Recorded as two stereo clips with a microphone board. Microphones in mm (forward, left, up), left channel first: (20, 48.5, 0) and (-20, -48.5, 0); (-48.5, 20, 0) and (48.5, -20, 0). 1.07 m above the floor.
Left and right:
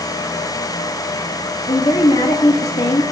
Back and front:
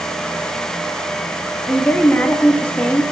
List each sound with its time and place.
1.7 s a woman speaking: 85° left, 1.7 m